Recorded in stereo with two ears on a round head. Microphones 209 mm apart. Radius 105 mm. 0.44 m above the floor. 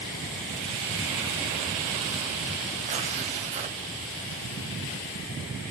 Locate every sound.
2.9 s tearing paper: 30° right (ahead or behind), 2 m